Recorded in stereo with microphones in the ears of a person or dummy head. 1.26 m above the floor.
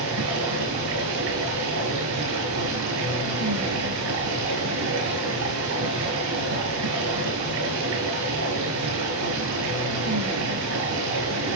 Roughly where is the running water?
Right.